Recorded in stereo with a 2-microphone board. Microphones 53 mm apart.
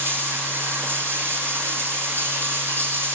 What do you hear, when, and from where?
0.0 s running water: 45° right (ahead or behind), 4.5 m